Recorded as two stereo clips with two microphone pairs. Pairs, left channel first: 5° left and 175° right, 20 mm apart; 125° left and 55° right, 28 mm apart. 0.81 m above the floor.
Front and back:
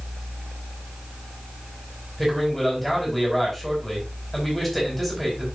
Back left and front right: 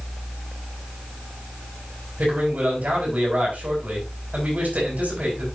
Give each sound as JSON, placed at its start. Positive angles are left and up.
{"t": 2.2, "sound": "a man speaking", "azimuth_deg": -75, "distance_m": 4.0}